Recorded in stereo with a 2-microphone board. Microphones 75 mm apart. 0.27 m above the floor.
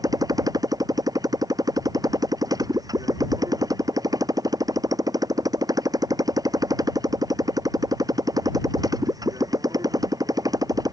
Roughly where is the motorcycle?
Right.